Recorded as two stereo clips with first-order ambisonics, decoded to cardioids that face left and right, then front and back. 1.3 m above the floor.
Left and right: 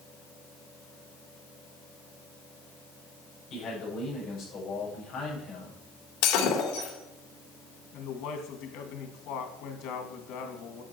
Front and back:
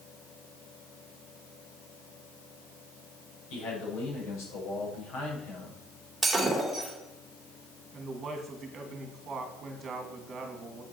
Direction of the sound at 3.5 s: 30° left.